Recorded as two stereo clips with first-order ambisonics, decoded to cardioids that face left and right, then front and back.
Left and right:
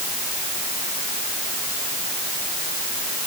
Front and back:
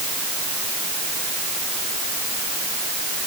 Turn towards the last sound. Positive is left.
No sound to turn to.